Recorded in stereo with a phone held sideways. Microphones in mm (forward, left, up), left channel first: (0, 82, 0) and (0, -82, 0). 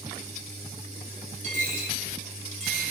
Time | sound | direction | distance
1.4 | a dropped coin | 45° right (ahead or behind) | 3.5 m